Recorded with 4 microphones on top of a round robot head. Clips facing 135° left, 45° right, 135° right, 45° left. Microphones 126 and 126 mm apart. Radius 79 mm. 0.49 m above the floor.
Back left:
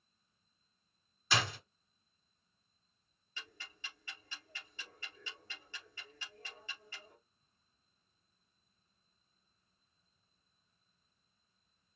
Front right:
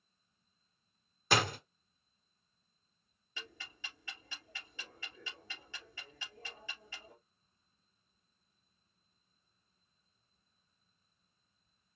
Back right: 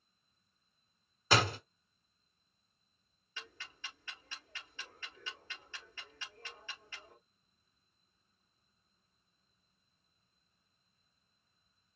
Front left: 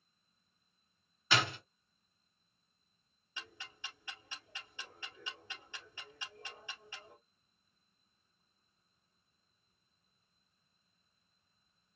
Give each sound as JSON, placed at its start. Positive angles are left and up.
{"t": 1.3, "sound": "a door slam", "azimuth_deg": -85, "distance_m": 1.2}
{"t": 3.4, "sound": "ticking", "azimuth_deg": -30, "distance_m": 2.5}